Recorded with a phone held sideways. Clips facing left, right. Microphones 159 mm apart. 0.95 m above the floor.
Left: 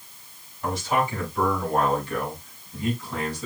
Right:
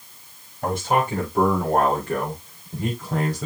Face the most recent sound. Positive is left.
turn(degrees=-60)  # may be behind; listen again after turning